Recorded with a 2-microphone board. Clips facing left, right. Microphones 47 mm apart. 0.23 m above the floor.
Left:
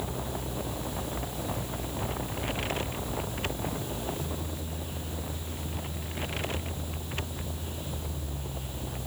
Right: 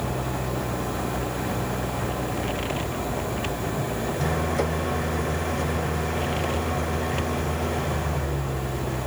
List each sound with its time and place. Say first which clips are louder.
0.0 s an engine running: right 7 dB; 75° right (ahead or behind)